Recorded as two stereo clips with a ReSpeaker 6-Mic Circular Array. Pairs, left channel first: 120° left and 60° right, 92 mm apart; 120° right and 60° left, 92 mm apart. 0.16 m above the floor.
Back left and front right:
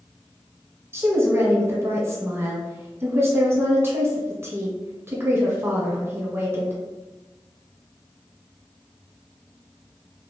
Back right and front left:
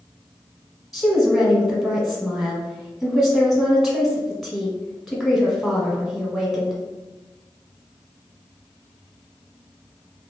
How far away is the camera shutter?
I don't hear a camera shutter.